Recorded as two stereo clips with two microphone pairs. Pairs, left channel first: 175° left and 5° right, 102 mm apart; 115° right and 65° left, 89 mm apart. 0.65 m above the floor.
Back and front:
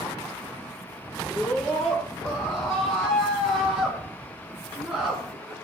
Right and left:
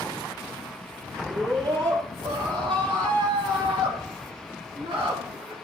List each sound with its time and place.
1.3 s a scream: 95° left, 10 m; by 5.5 s 80° left, 7 m